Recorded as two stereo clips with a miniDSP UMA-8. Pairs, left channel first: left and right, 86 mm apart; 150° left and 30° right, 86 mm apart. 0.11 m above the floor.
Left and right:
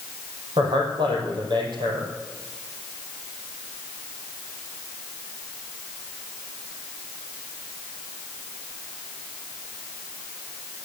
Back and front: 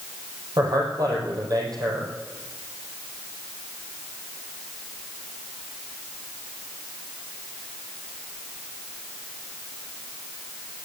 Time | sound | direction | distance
0.6 | a man speaking | 70° right | 5 m